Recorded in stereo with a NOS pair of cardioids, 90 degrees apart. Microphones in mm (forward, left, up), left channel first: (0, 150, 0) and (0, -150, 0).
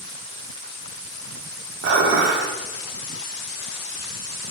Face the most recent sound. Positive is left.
turn(degrees=-45)